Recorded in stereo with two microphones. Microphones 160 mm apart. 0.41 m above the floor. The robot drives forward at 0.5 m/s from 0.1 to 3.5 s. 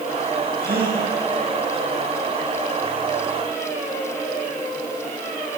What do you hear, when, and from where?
0.6 s a gasp: 75° right (ahead or behind), 6 m